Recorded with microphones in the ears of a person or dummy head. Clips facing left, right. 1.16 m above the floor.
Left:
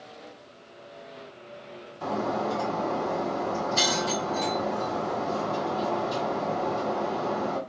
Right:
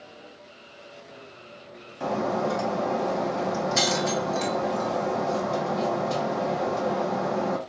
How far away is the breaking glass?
About 1.3 m.